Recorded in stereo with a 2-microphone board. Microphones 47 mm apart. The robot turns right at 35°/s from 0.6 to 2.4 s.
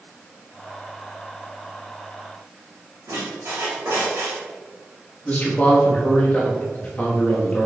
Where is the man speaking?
35° left (ahead or behind), 1.1 m.